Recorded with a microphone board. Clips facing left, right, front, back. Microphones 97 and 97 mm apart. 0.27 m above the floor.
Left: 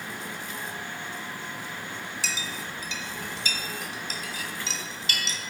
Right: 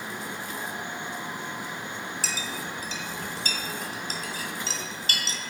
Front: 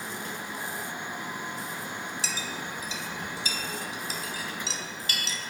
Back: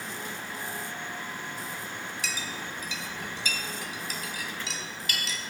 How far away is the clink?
About 1.2 m.